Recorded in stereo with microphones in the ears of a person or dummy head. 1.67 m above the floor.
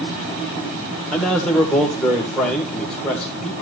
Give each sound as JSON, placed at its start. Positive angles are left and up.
{"t": 1.1, "sound": "a man speaking", "side_deg": 10, "distance_m": 1.9}